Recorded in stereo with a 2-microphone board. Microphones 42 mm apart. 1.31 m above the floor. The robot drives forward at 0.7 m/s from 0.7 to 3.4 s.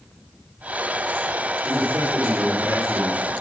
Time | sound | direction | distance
1.6 | a man speaking | 55° right (ahead or behind) | 3.5 m